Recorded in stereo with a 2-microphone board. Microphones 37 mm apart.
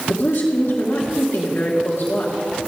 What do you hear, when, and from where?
0.1 s a woman speaking: 70° left (ahead or behind), 2 m